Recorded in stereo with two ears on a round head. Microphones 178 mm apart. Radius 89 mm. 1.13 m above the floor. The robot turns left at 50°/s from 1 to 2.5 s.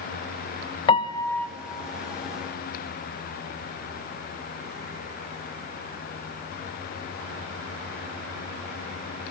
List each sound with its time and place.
0.9 s a piano: 25° left (ahead or behind), 0.5 m; by 1.5 s 5° left (ahead or behind), 0.5 m